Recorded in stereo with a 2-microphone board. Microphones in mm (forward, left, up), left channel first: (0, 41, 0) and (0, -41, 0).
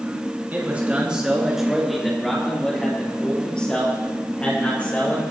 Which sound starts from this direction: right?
A man speaking, at 0.5 s.